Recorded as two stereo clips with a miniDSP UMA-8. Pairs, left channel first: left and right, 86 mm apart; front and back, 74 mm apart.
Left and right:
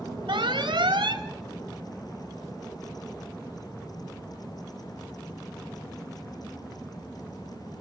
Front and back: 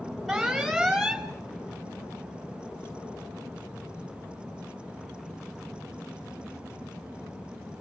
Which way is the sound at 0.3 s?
90° right.